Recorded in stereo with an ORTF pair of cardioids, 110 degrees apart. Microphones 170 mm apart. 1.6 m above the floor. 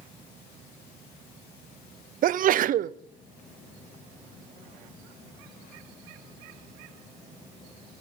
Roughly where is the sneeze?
Ahead right.